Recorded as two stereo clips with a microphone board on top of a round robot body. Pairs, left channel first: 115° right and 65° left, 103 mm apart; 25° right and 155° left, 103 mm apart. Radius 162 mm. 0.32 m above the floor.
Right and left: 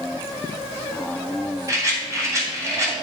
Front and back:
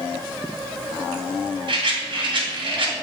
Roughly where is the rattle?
Behind left.